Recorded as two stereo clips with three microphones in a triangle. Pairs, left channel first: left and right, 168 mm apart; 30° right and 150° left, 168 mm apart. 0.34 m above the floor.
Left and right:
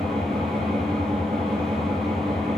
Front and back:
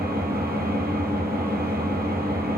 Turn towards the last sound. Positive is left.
turn(degrees=180)